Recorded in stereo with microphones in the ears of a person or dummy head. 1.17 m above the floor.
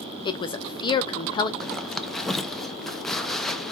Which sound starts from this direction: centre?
A zipper, at 1.6 s.